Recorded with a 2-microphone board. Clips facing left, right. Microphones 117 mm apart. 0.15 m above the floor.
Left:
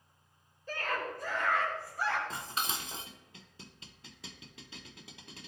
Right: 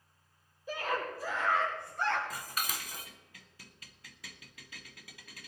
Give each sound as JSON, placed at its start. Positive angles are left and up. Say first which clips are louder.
{"t": 0.7, "sound": "a scream", "louder": "right 1 dB", "side_deg": -10, "distance_m": 5.0}
{"t": 2.3, "sound": "dishes clattering", "louder": "left 2 dB", "side_deg": 25, "distance_m": 0.8}